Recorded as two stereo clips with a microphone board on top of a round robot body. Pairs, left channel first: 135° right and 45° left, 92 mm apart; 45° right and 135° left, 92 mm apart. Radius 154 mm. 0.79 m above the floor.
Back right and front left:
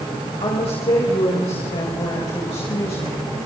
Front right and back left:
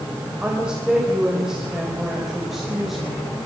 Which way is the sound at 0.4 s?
145° right.